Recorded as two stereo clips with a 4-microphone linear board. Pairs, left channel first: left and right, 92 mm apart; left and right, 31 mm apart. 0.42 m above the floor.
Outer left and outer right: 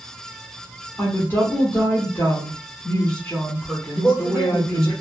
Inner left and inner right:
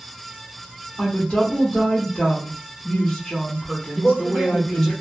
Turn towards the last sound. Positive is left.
turn(degrees=15)  # may be behind; listen again after turning